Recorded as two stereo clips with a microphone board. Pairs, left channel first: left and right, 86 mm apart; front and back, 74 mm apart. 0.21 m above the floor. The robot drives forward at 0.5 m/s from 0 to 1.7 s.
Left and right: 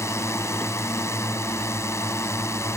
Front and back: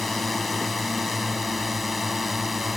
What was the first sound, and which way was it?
A drone, 85° left.